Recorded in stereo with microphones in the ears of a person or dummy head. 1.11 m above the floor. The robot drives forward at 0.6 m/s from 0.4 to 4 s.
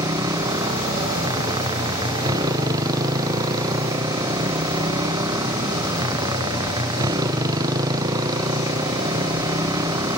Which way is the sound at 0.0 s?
20° right (ahead or behind).